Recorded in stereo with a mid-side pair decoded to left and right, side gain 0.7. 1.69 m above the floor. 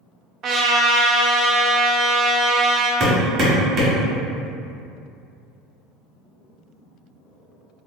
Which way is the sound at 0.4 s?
45° right.